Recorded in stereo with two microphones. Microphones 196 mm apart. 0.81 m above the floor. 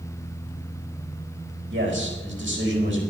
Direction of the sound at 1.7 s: 75° right (ahead or behind).